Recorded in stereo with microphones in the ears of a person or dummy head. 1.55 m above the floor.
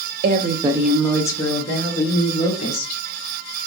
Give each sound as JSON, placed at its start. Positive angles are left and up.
{"t": 0.2, "sound": "a woman speaking", "side_deg": -55, "distance_m": 0.6}